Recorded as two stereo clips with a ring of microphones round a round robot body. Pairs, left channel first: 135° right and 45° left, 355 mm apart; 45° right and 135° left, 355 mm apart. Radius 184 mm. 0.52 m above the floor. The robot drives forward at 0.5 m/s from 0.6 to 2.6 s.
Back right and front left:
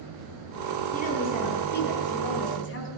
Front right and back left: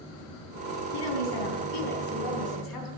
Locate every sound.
0.9 s a woman speaking: 65° right, 4 m; by 2.9 s 80° right, 4 m